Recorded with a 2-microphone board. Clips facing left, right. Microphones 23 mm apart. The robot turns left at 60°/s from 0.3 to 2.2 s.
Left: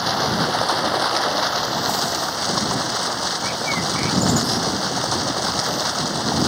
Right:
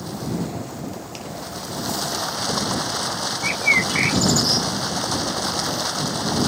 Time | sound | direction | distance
0.0 | running water | 125° left | ?
3.4 | a bird | 45° right (ahead or behind) | ?